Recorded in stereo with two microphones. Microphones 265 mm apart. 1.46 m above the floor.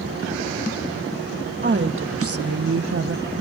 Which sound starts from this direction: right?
A woman speaking, at 1.6 s.